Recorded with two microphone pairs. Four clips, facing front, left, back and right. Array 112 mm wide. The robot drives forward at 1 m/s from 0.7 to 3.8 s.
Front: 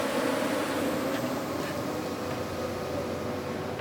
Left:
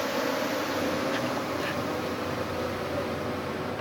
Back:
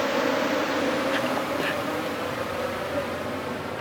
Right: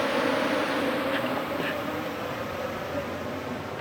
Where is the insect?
160° right; by 3.8 s straight behind.